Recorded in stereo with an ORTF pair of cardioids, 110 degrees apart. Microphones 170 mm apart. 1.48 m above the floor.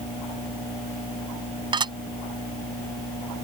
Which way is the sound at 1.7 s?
25° right.